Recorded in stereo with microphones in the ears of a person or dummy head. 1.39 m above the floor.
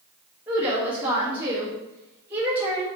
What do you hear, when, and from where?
0.5 s a woman speaking: 15° right (ahead or behind), 1.3 m